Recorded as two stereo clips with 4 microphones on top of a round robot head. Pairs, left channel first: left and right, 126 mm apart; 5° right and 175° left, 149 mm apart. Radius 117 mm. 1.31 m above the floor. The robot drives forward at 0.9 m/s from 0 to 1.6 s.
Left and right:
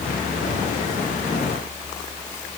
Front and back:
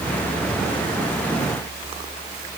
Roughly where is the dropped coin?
I don't hear a dropped coin.